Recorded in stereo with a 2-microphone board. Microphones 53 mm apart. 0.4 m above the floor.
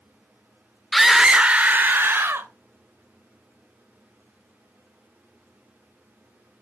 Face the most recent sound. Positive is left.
turn(degrees=-50)  # may be behind; listen again after turning